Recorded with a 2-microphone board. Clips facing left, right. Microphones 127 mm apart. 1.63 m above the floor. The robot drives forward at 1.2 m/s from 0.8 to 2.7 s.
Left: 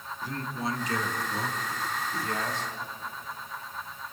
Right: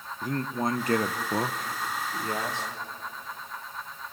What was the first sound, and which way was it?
A man speaking, 50° right (ahead or behind).